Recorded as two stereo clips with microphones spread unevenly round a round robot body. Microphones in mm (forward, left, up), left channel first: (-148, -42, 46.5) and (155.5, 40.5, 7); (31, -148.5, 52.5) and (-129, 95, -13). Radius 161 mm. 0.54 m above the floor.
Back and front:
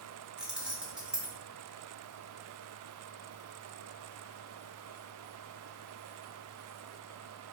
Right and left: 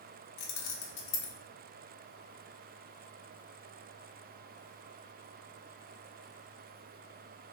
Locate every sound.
0.4 s keys jangling: 60° right, 0.5 m